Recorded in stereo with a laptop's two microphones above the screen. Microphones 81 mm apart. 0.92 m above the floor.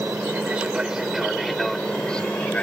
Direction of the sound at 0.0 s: 20° right (ahead or behind).